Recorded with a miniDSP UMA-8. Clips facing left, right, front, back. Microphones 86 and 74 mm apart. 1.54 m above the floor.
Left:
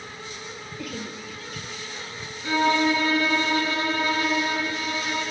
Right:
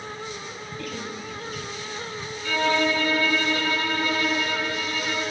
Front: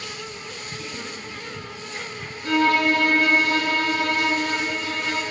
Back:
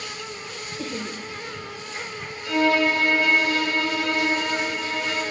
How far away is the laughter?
About 1.6 m.